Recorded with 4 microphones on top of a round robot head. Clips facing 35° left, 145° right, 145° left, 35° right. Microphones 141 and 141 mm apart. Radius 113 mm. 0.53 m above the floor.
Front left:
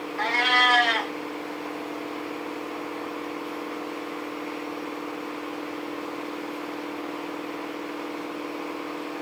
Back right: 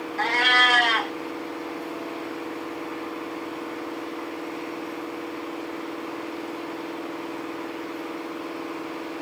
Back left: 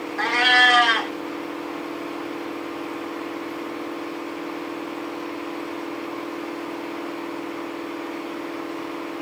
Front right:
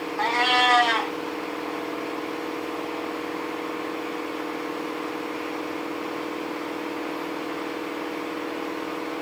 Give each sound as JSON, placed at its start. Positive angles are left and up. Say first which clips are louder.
{"t": 0.2, "sound": "a cat meowing", "louder": "back right 1 dB, back left 1 dB", "azimuth_deg": 170, "distance_m": 0.7}